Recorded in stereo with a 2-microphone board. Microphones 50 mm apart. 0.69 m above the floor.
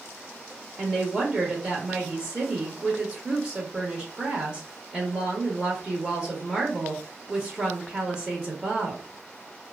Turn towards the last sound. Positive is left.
turn(degrees=-15)  # may be behind; listen again after turning